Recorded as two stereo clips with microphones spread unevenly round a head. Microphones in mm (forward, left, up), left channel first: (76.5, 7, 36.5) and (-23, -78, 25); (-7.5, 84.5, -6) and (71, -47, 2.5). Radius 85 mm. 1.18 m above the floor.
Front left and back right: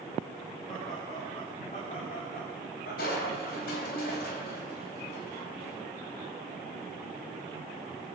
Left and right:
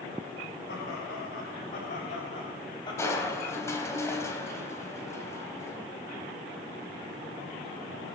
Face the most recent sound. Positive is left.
turn(degrees=50)